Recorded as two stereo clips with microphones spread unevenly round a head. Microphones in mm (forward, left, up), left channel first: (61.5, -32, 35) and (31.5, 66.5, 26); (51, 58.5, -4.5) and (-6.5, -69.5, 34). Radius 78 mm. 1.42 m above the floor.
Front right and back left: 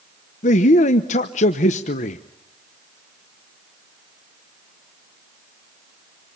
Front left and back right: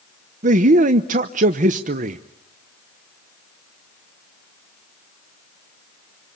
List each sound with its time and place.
0.4 s a man speaking: 80° right, 1.0 m